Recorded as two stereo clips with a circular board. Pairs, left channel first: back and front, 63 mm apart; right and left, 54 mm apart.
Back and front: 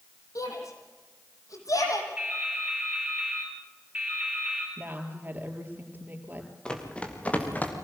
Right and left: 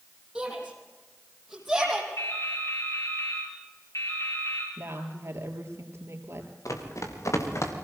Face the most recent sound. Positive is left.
turn(degrees=-120)